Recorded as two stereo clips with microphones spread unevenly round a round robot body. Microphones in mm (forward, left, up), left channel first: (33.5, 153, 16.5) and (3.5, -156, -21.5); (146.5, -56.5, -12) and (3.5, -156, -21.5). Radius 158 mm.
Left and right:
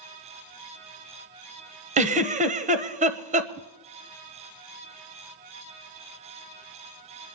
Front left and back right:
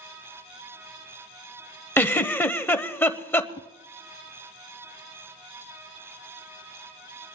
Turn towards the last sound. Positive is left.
turn(degrees=-35)